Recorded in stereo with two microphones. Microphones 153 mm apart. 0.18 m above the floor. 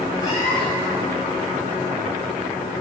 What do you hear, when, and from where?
0.2 s a cat meowing: 25° left (ahead or behind), 4 m